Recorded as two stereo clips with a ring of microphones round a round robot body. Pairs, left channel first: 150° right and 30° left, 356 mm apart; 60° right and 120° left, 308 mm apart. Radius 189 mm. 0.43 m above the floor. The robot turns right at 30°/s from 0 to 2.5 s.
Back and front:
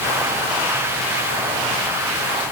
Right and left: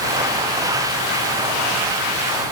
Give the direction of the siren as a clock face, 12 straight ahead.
I don't hear a siren.